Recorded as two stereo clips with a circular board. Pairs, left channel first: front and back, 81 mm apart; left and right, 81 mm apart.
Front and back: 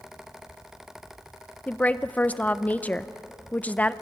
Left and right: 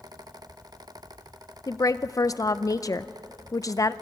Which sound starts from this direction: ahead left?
A woman speaking, at 1.7 s.